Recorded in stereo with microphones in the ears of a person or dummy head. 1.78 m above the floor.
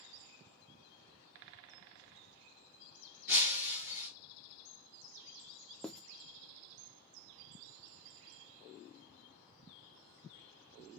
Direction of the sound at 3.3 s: 40° left (ahead or behind).